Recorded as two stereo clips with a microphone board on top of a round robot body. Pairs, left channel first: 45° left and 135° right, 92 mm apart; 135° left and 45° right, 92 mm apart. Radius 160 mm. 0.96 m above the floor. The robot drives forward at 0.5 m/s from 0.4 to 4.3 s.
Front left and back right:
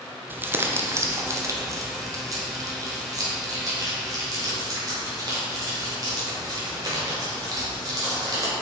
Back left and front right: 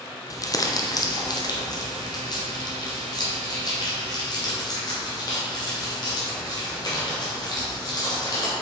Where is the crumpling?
165° left, 1.0 m; by 8.5 s 175° left, 2.5 m.